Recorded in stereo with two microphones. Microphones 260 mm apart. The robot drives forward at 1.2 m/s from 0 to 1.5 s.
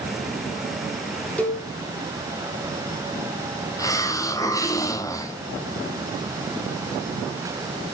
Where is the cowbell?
5° left (ahead or behind), 1.7 m.